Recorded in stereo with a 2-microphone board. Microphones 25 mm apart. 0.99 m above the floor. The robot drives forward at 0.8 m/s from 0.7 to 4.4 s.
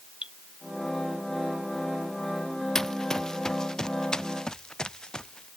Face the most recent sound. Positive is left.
turn(degrees=35)  # may be behind; listen again after turning